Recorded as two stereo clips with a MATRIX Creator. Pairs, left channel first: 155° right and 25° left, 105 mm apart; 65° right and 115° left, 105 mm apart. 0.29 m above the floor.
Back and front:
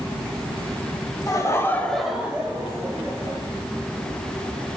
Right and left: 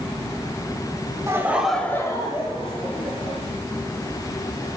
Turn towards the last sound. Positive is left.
turn(degrees=-40)